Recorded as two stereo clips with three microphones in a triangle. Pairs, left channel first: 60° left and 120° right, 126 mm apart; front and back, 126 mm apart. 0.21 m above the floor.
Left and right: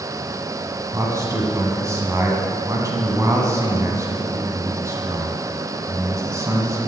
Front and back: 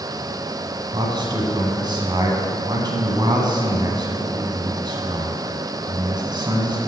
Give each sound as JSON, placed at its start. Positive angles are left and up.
{"t": 0.9, "sound": "a man speaking", "azimuth_deg": -165, "distance_m": 1.7}